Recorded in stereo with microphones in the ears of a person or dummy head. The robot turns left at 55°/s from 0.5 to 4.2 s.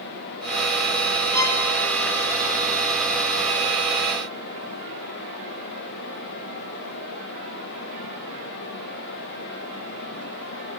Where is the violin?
15° left (ahead or behind), 1.9 m; by 1.6 s 30° left (ahead or behind), 1.9 m.